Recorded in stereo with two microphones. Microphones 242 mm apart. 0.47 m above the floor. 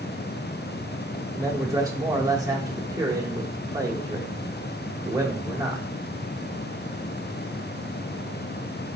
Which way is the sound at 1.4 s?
15° right (ahead or behind).